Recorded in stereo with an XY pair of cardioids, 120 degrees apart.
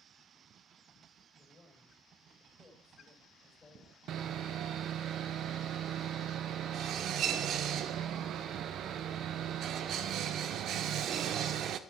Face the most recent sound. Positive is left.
turn(degrees=-65)